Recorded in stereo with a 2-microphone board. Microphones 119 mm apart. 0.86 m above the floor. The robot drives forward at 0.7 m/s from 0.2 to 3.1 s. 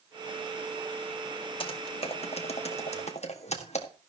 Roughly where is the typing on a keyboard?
Left.